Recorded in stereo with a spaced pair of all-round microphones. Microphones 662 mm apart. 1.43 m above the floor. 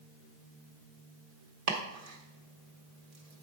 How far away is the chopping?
About 1.1 m.